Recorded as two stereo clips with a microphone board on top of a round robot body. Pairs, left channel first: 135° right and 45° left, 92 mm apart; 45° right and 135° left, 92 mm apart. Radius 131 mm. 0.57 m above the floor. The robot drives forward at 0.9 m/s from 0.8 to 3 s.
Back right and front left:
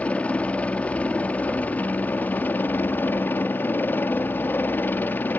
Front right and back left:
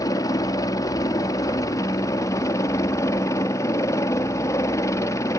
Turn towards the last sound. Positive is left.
turn(degrees=-75)